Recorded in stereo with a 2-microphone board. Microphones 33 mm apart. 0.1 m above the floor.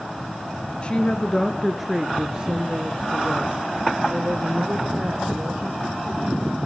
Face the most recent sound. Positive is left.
turn(degrees=-65)  # may be behind; listen again after turning